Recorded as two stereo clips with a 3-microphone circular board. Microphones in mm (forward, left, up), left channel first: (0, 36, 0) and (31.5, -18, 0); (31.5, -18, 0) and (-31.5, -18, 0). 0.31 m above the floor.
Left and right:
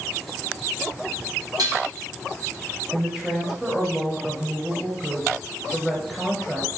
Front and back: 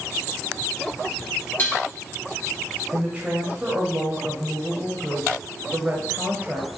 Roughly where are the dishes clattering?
Ahead right.